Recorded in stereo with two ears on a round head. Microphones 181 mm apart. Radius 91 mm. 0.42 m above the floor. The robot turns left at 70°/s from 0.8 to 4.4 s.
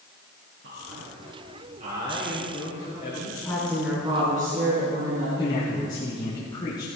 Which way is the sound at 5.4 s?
20° left (ahead or behind).